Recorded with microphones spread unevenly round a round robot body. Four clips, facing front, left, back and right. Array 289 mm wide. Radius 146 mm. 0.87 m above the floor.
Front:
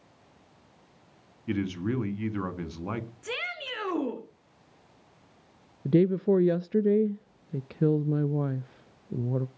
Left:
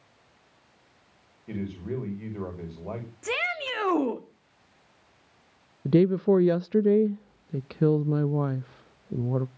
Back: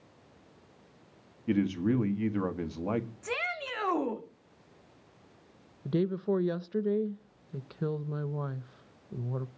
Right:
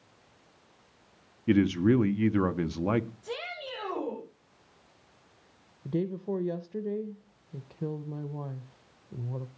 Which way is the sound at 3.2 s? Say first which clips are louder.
Left 7 dB, back 1 dB; 85° left.